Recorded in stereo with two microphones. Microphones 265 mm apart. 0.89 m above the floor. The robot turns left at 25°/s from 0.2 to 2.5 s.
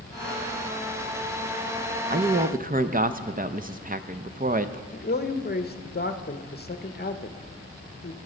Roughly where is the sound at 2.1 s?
Right.